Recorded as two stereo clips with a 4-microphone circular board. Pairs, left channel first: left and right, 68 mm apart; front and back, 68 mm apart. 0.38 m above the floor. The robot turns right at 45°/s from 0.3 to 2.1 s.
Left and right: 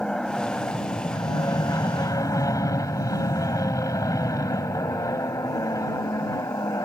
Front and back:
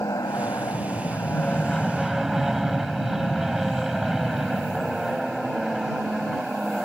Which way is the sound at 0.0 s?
15° left.